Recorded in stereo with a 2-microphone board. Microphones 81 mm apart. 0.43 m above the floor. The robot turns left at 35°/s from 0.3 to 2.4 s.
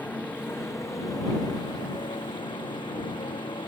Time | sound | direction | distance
0.0 | a motorcycle | 160° left | ?